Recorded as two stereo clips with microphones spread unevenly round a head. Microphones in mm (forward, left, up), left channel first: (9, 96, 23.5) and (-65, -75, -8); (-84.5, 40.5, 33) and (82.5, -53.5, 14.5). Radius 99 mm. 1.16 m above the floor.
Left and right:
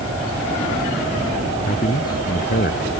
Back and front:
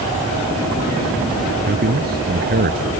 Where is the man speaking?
15° left.